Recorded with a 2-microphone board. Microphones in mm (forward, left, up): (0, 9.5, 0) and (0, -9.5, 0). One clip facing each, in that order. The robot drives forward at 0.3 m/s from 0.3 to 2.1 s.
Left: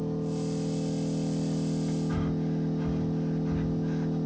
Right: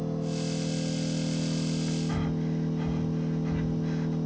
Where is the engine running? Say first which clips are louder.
Even; 45° right (ahead or behind), 1.5 m; by 4.3 s 35° right (ahead or behind), 1.9 m.